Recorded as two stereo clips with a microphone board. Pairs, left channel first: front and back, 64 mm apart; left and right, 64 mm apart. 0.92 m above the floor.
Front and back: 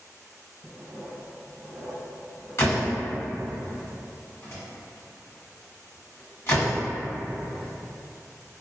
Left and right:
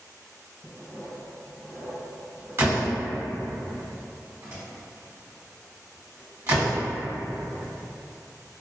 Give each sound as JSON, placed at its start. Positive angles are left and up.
{"t": 0.6, "sound": "writing", "azimuth_deg": -130, "distance_m": 1.4}
{"t": 2.6, "sound": "a door slam", "azimuth_deg": -45, "distance_m": 1.2}